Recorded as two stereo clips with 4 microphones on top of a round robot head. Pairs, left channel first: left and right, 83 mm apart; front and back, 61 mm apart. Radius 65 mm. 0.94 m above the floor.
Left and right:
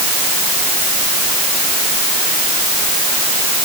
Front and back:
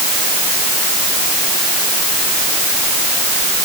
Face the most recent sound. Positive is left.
No sound to turn to.